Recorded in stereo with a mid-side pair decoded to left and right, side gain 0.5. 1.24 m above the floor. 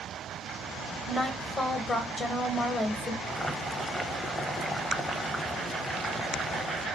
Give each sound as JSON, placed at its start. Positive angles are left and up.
{"t": 1.1, "sound": "a woman speaking", "azimuth_deg": 35, "distance_m": 1.1}
{"t": 3.2, "sound": "boiling", "azimuth_deg": 10, "distance_m": 0.6}